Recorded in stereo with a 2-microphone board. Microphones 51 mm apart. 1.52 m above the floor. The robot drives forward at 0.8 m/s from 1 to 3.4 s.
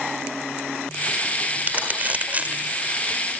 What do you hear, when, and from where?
1.6 s crumpling: 35° right (ahead or behind); by 2.8 s 30° right (ahead or behind)